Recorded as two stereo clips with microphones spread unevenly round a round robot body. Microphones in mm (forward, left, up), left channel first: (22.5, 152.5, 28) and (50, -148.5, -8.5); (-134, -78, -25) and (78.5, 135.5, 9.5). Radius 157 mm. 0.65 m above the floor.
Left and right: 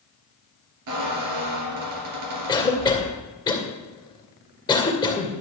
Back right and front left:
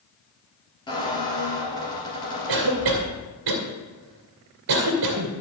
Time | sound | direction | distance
0.9 | a squeak | 55° right | 2.5 m
2.5 | a cough | 20° left | 2.5 m